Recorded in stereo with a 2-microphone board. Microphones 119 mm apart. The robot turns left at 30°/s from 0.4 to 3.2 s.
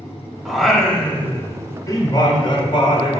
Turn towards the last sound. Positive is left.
turn(degrees=100)